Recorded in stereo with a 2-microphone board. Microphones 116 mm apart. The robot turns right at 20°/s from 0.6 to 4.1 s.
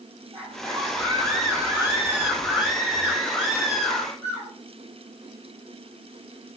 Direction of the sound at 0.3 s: 50° right.